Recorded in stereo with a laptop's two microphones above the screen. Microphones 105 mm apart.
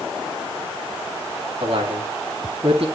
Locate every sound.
1.6 s a man speaking: 65° right (ahead or behind), 2 m